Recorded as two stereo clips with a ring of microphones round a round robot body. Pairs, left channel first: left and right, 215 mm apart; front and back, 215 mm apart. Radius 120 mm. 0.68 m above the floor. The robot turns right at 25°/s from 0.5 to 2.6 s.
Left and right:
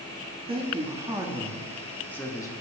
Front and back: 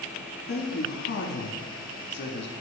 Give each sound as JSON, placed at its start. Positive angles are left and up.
{"t": 0.5, "sound": "a man speaking", "azimuth_deg": -30, "distance_m": 1.3}